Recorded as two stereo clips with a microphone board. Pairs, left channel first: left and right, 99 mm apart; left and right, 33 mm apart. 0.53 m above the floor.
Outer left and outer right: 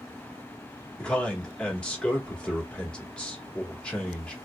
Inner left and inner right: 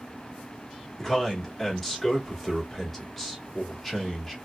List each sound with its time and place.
1.0 s a man speaking: 10° left (ahead or behind), 1.3 m